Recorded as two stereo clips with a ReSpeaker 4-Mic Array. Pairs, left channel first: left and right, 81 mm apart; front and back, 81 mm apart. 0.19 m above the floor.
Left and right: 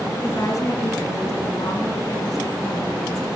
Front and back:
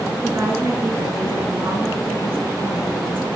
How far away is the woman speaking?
About 2.5 m.